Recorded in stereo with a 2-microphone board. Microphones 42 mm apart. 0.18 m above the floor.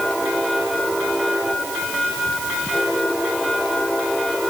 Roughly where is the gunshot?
I don't hear a gunshot.